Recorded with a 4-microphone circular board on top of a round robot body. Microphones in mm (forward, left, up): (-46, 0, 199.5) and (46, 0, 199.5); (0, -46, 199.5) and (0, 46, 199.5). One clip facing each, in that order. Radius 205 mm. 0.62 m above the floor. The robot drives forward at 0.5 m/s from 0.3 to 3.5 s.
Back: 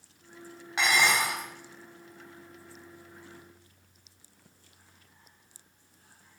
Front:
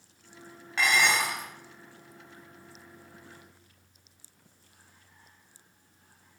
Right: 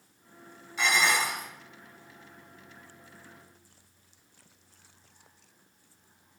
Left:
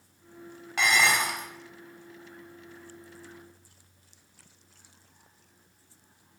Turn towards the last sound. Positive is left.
turn(degrees=130)